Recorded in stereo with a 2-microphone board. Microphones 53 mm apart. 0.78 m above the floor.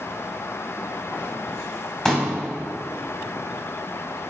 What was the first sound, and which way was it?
A pop, 10° left (ahead or behind).